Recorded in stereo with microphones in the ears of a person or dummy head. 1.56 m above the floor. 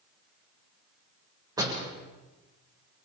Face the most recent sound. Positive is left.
turn(degrees=-20)  # may be behind; listen again after turning